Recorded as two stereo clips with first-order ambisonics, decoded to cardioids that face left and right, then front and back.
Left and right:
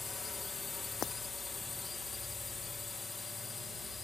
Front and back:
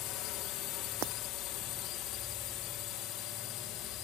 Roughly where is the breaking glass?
Behind left.